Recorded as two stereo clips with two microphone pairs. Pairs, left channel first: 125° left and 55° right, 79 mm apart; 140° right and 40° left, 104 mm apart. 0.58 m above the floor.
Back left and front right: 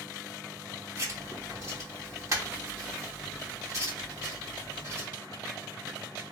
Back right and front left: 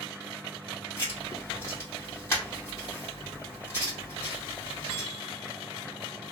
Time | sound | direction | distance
1.0 | writing | 80° right | 1.9 m